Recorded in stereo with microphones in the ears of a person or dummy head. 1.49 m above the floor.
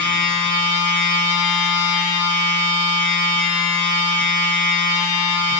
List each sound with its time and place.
0.0 s a machine running: 20° left (ahead or behind), 1.1 m